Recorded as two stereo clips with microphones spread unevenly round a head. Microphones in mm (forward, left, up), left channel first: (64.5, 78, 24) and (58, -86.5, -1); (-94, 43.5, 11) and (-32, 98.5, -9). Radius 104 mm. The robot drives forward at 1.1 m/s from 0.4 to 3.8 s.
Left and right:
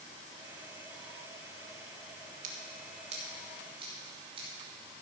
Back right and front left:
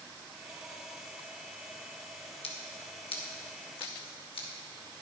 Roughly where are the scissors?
Behind right.